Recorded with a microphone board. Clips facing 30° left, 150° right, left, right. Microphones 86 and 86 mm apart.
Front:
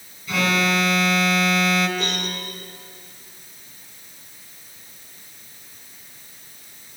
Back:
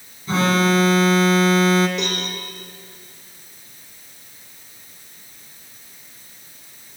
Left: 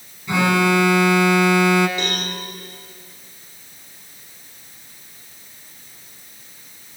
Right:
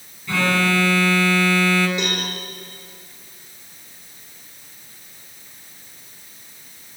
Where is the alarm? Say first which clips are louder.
Back 4 dB, left 3 dB; 160° left, 2.5 m.